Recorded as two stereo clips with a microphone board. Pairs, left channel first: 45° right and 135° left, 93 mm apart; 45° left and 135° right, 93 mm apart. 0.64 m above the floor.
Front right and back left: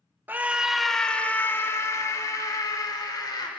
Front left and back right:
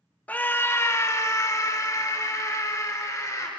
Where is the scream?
95° left, 1.2 m; by 3.5 s 10° right, 3 m.